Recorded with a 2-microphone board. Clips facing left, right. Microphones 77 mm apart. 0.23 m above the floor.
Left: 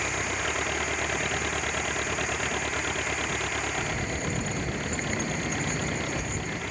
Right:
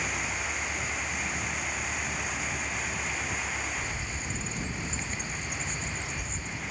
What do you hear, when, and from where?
0.0 s an engine running: 85° left
3.8 s a bird: 55° left (ahead or behind)